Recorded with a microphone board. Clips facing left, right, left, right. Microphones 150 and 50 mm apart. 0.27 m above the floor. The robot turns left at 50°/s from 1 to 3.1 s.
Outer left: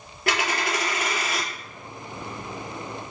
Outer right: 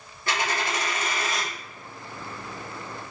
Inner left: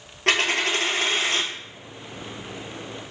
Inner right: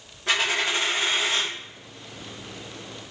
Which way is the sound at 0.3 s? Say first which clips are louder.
Outer left 2 dB, inner left 2 dB; 85° left.